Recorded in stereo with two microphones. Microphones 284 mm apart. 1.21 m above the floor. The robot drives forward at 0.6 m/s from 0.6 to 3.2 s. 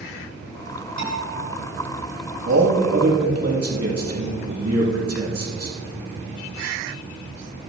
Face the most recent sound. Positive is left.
turn(degrees=-65)  # may be behind; listen again after turning